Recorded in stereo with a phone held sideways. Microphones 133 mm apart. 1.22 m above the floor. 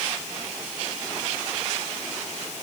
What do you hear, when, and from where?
Only background noise.